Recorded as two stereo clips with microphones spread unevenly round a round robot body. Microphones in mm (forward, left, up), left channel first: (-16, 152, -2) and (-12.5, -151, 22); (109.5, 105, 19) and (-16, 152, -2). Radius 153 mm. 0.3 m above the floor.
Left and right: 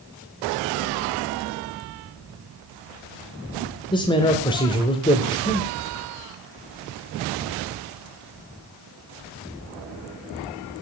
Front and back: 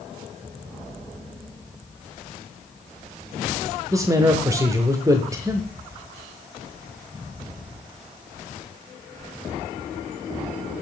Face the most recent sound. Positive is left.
turn(degrees=145)